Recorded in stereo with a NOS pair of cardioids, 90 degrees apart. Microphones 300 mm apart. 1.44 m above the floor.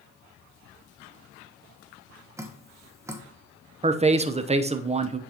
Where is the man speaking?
20° right, 0.7 m.